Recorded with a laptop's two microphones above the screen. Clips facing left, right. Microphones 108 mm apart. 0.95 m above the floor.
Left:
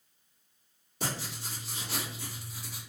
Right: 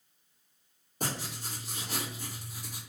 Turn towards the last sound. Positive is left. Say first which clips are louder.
# even
turn(degrees=-40)  # may be behind; listen again after turning